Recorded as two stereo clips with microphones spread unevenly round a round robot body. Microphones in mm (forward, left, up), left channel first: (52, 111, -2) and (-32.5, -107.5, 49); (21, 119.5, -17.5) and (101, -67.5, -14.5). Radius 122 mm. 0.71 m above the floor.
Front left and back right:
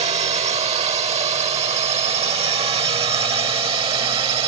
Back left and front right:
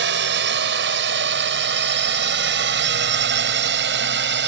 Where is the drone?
45° right; by 4.5 s 40° right.